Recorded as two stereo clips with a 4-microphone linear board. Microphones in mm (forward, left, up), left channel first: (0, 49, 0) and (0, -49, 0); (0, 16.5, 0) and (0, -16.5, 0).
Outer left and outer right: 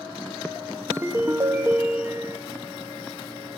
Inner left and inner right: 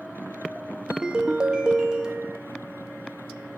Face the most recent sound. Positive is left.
turn(degrees=-25)  # may be behind; listen again after turning